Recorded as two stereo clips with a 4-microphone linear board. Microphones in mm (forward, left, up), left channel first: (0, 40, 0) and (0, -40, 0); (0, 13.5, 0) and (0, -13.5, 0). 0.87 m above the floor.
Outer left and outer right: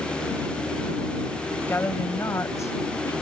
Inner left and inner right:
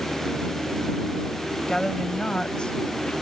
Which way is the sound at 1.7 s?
30° left (ahead or behind).